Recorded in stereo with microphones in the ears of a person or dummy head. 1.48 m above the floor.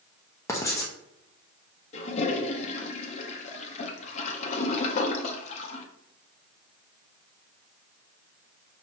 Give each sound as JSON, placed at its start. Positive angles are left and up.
{"t": 0.5, "sound": "writing", "side_deg": 15, "distance_m": 0.8}
{"t": 1.9, "sound": "a toilet flushing", "side_deg": 40, "distance_m": 0.7}